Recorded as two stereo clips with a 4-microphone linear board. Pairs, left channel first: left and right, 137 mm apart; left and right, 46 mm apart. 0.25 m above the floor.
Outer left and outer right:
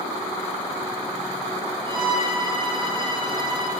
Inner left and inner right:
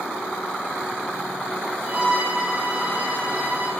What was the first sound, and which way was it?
A violin, 40° right (ahead or behind).